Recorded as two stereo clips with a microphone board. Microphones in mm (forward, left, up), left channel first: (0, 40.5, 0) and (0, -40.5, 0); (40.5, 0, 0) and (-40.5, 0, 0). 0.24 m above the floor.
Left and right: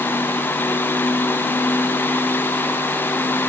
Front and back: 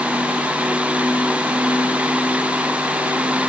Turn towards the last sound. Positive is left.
No sound to turn to.